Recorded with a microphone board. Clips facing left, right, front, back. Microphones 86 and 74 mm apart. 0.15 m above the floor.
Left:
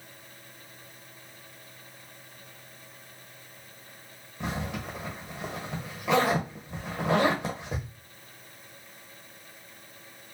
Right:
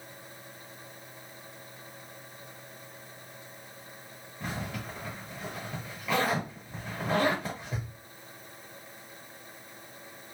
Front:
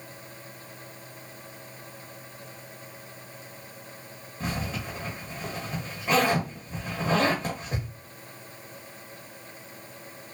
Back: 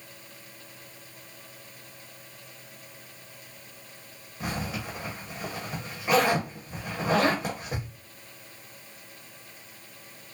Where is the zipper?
100° left, 1.2 m.